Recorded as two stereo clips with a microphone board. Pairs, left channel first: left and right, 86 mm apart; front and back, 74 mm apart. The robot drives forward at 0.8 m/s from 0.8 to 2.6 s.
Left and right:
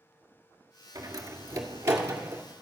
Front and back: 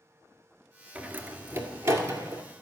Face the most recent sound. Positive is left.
turn(degrees=-150)